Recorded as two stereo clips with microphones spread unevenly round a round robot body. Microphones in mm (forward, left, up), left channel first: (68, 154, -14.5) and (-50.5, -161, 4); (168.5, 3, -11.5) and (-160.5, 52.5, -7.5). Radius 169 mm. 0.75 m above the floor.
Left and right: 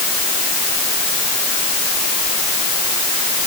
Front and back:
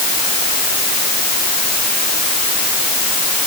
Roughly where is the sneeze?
I don't hear a sneeze.